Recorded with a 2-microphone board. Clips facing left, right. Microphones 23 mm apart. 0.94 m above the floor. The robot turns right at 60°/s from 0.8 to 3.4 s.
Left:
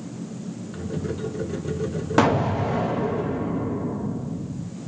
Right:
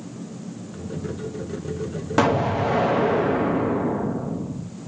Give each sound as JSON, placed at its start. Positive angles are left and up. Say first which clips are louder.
{"t": 2.2, "sound": "an explosion", "louder": "even", "azimuth_deg": 180, "distance_m": 0.6}